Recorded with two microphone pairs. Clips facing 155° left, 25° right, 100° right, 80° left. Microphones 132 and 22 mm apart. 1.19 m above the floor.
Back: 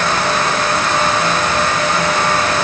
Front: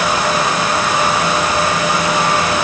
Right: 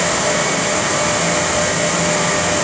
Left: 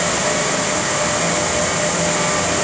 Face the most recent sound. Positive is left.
No sound to turn to.